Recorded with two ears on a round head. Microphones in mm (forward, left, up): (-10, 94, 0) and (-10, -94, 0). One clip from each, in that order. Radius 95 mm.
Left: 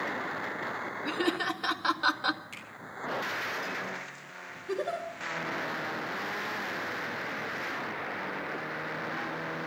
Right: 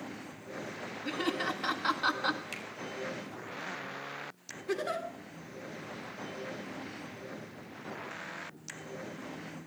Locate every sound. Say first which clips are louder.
1.1 s laughter: left 2 dB; 5° left (ahead or behind), 1.9 m
2.5 s a finger snap: right 3 dB; 45° right (ahead or behind), 5 m
4.7 s a giggle: left 1 dB; 45° right (ahead or behind), 3 m